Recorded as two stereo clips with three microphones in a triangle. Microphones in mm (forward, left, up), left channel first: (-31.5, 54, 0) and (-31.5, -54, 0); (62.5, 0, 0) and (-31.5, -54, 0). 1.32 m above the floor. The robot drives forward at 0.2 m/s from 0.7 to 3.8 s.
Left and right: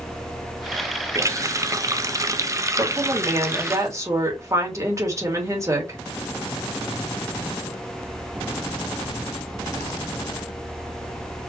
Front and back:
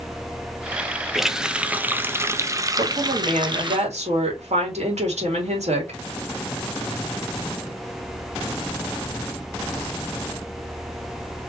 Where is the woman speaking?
150° right, 2.5 m; by 6.0 s 155° right, 2.5 m.